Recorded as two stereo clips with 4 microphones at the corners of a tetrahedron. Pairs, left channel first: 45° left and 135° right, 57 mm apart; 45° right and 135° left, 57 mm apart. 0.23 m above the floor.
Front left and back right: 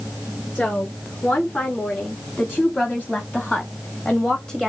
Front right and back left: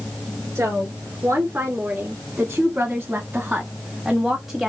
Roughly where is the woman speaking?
Left.